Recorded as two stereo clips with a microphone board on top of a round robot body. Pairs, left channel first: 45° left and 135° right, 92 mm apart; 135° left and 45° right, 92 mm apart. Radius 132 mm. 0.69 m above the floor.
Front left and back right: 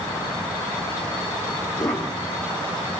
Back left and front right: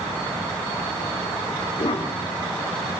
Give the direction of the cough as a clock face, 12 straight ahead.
9 o'clock.